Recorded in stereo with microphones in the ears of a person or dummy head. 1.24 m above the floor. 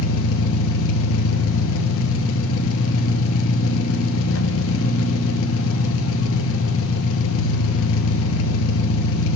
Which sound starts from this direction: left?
An engine running, at 0.0 s.